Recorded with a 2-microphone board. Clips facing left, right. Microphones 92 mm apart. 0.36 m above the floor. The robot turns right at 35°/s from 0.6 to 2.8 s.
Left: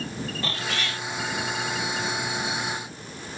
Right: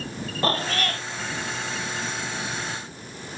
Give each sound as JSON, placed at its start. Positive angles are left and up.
{"t": 0.4, "sound": "a cat meowing", "side_deg": -40}